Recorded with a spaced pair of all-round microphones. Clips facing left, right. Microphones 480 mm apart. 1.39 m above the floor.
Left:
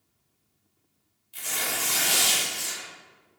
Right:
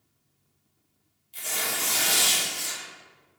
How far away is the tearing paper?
About 0.9 m.